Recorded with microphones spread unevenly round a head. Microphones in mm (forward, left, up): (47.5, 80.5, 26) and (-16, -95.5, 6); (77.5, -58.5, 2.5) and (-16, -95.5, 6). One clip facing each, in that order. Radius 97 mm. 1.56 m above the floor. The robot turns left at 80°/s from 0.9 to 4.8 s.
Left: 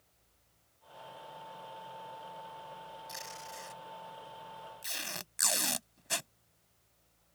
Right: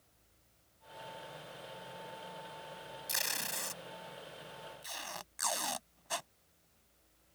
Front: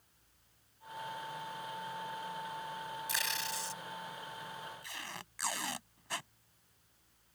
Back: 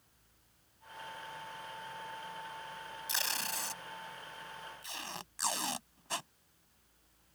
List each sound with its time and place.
3.1 s tape being pulled: 95° right; by 6.3 s 130° left